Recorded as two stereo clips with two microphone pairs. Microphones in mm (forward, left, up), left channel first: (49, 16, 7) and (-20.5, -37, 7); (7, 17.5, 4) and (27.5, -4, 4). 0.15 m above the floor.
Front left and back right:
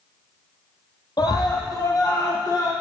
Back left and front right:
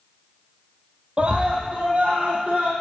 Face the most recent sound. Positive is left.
turn(degrees=-10)